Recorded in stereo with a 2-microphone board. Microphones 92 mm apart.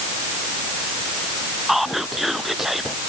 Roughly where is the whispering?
Centre.